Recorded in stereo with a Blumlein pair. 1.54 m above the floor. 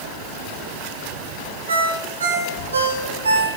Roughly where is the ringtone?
Right.